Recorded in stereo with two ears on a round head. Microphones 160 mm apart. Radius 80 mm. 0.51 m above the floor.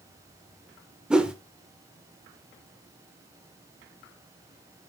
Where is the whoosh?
5° right (ahead or behind), 0.7 m.